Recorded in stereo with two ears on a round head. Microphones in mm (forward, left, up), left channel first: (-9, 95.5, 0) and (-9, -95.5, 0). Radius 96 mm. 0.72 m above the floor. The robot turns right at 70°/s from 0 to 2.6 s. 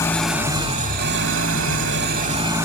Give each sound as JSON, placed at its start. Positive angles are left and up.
{"t": 0.0, "sound": "an engine running", "azimuth_deg": 160, "distance_m": 1.8}